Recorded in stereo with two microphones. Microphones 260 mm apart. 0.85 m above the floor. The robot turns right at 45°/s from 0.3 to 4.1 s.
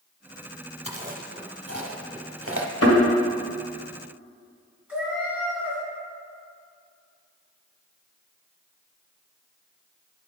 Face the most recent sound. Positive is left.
turn(degrees=-5)  # may be behind; listen again after turning